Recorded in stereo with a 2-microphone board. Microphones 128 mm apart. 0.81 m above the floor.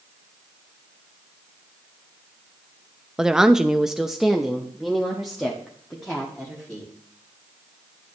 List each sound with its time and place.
3.2 s a woman speaking: 5° right (ahead or behind), 0.5 m; by 6.9 s centre (ahead or behind), 2.0 m